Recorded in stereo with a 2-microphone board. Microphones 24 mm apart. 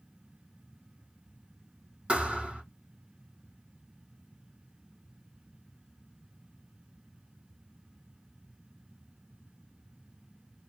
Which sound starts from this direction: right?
A thud, at 2.1 s.